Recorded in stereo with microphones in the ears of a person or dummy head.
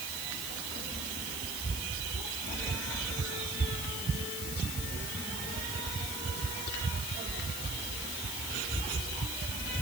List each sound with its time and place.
Only background noise.